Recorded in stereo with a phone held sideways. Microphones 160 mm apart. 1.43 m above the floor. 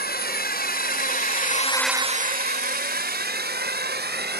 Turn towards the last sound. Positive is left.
turn(degrees=-85)